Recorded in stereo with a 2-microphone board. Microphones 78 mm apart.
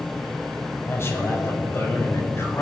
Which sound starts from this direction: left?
A man speaking, at 0.8 s.